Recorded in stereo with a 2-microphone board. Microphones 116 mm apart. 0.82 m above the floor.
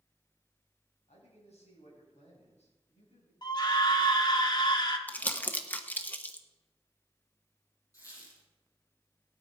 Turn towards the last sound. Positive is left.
turn(degrees=30)  # may be behind; listen again after turning